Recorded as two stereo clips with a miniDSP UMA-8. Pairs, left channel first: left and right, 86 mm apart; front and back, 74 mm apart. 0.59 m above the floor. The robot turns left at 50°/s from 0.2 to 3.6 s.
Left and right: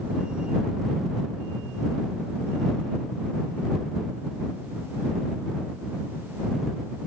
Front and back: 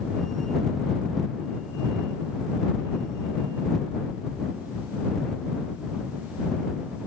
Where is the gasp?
No gasp in this recording.